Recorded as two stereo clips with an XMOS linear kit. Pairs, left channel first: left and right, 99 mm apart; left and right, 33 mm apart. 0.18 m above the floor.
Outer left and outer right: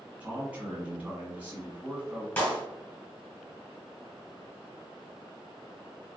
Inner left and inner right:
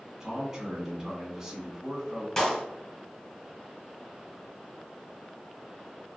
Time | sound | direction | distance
0.2 | a man speaking | 15° right (ahead or behind) | 1.5 m
2.4 | a clap | 20° left (ahead or behind) | 1.4 m